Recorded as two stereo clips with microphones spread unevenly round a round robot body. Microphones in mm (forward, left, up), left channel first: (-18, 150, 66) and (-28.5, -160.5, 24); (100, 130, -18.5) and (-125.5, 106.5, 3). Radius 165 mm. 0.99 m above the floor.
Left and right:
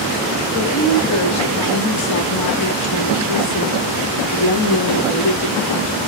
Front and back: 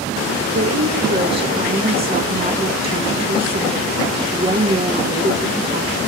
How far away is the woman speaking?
About 1.7 m.